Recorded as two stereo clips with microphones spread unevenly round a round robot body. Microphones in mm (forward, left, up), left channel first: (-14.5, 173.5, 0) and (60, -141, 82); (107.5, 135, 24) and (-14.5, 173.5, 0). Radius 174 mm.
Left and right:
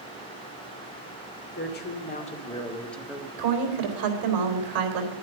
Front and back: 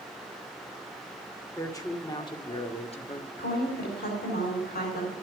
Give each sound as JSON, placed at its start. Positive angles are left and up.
{"t": 1.5, "sound": "a woman speaking", "azimuth_deg": 55, "distance_m": 2.5}
{"t": 3.4, "sound": "a woman speaking", "azimuth_deg": -50, "distance_m": 4.0}